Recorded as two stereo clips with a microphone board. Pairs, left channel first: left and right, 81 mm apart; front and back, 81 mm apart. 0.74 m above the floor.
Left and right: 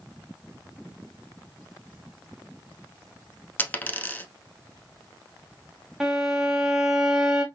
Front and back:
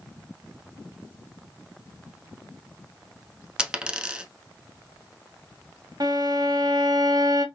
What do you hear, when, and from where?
3.6 s a dropped coin: 120° left, 0.7 m
6.0 s a violin: 170° right, 0.8 m